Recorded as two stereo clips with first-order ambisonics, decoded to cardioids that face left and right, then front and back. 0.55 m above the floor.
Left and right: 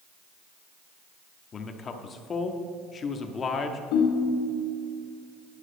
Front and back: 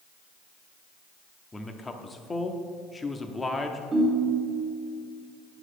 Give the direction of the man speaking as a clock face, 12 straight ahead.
10 o'clock.